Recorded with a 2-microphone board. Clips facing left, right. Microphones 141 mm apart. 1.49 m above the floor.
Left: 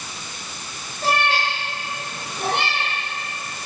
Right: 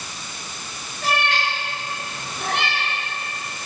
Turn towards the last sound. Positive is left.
turn(degrees=25)  # may be behind; listen again after turning